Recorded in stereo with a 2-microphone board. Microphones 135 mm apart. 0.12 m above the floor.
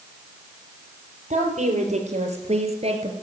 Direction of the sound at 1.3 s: 65° right (ahead or behind).